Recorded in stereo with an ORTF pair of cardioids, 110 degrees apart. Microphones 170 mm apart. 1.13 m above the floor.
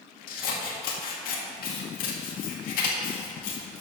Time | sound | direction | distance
0.3 | scissors | 65° left | 1.7 m